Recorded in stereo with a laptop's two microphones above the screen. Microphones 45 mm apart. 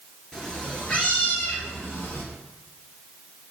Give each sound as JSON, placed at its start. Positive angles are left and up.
{"t": 0.3, "sound": "a cat meowing", "side_deg": 5, "distance_m": 1.8}